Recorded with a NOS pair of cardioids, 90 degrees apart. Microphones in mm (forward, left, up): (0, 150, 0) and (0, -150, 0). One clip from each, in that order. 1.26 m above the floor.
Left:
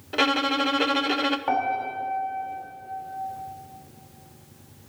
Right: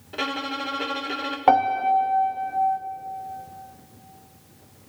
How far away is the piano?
About 1.7 m.